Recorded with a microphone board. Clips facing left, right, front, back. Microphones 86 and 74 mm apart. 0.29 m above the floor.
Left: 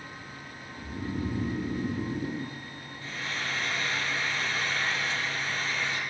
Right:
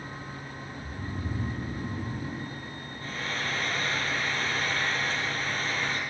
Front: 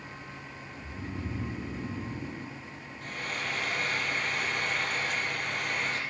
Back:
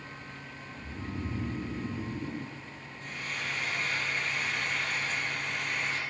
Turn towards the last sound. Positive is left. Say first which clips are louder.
# right 2 dB, front 2 dB
turn(degrees=-40)